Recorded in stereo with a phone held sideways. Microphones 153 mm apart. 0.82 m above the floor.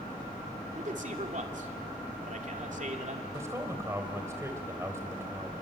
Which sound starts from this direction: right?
A man speaking, at 0.8 s.